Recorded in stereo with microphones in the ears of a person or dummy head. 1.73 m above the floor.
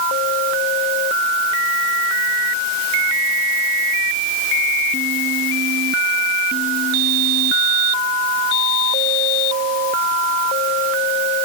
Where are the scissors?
I don't hear scissors.